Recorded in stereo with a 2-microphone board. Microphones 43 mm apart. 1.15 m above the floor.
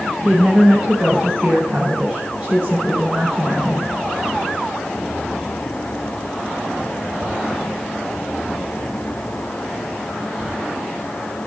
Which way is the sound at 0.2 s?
20° right (ahead or behind).